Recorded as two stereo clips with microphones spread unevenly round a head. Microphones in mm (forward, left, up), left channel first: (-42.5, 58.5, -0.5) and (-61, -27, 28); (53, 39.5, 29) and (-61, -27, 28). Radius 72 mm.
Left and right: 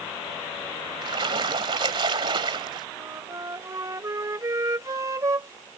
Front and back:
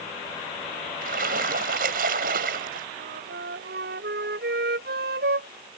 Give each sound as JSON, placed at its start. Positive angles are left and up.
{"t": 1.0, "sound": "a splash", "azimuth_deg": -125}
{"t": 2.9, "sound": "a flute", "azimuth_deg": -150}